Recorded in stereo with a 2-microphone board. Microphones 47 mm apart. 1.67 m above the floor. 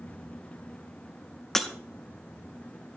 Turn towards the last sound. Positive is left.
turn(degrees=10)  # may be behind; listen again after turning